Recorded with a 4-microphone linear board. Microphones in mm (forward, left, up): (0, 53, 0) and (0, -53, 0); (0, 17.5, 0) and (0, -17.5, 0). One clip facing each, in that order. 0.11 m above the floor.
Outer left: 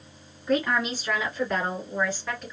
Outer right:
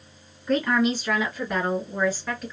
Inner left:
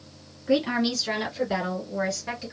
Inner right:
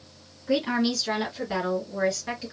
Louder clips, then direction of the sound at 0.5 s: Outer right 3 dB, inner left 1 dB; 5° left (ahead or behind).